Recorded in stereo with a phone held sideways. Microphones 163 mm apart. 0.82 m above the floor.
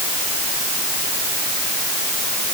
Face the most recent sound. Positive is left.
No sound to turn to.